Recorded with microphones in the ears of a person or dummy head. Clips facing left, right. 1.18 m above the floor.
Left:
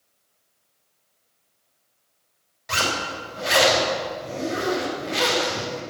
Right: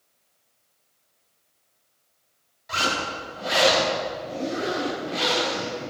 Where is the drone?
I don't hear a drone.